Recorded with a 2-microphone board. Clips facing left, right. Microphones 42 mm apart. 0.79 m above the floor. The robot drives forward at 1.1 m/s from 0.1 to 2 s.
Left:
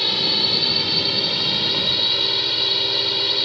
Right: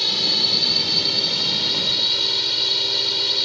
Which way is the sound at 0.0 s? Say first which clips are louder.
Left 1 dB; 15° left (ahead or behind).